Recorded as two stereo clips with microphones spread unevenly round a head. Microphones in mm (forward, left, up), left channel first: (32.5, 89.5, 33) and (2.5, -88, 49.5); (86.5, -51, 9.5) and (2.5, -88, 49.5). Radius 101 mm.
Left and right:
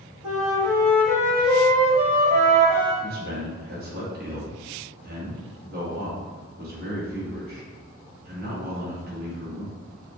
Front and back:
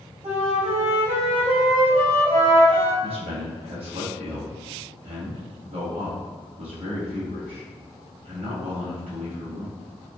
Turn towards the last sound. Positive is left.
turn(degrees=-140)